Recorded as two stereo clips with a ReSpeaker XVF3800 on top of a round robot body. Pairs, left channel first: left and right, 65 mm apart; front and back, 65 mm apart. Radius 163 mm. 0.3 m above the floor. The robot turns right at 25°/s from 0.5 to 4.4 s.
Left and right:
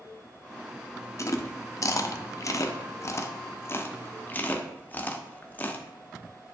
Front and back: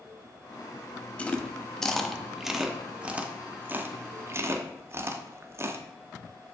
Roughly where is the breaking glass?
No breaking glass in this recording.